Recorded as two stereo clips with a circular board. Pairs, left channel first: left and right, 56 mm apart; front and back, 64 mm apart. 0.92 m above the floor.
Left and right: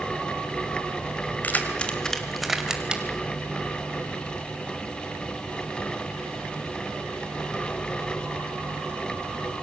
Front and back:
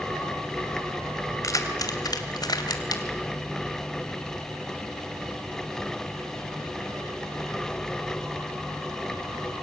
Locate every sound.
1.4 s keys jangling: 35° left, 2.5 m; by 3.0 s 20° right, 3 m